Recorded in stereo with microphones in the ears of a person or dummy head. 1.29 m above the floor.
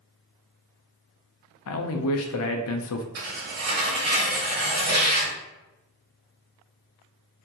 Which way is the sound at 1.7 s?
75° left (ahead or behind).